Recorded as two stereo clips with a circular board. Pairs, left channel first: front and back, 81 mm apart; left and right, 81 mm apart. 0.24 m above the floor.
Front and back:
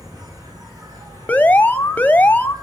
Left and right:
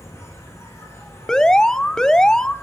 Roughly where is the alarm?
Ahead.